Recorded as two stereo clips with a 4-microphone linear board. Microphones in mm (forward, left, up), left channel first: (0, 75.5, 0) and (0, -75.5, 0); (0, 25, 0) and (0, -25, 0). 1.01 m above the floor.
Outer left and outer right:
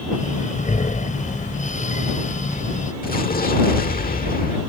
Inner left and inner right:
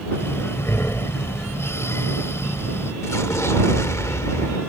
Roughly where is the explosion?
Left.